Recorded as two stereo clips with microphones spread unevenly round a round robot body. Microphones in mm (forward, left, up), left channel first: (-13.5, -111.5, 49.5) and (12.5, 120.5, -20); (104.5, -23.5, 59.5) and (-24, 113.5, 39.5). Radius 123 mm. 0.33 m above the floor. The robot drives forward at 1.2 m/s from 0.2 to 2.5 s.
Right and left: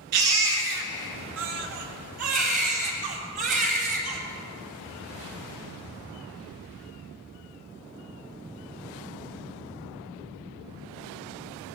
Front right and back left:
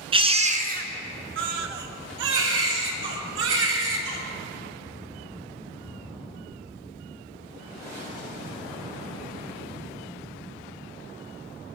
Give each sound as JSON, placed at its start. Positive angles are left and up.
{"t": 0.1, "sound": "a baby crying", "azimuth_deg": 70, "distance_m": 1.7}